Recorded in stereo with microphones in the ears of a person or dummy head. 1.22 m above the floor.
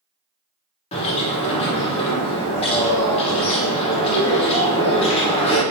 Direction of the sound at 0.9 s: 30° left (ahead or behind).